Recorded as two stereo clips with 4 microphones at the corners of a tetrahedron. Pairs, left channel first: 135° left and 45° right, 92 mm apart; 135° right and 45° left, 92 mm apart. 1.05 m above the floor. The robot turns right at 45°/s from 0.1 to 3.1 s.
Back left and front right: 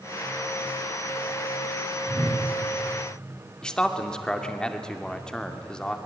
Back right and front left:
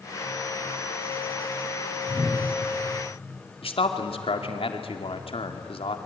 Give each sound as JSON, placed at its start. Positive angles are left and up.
{"t": 2.1, "sound": "a whoosh", "azimuth_deg": -50, "distance_m": 6.0}
{"t": 3.6, "sound": "a man speaking", "azimuth_deg": -145, "distance_m": 2.5}